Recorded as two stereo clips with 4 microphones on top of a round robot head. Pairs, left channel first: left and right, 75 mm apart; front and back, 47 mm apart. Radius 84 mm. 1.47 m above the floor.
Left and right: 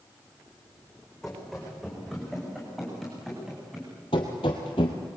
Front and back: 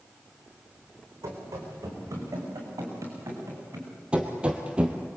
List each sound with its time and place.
1.2 s running footsteps: straight behind, 6 m; by 3.9 s 175° right, 8 m
4.1 s running footsteps: 120° left, 2 m